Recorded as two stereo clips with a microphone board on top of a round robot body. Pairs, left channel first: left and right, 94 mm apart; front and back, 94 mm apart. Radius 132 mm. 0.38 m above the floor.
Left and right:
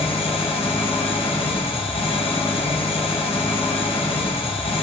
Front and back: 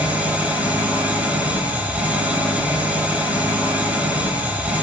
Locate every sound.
0.0 s an engine running: 105° left, 2 m